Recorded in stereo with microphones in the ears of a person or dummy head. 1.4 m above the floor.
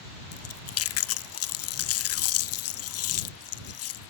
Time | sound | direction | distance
0.3 | chewing | 75° left (ahead or behind) | ?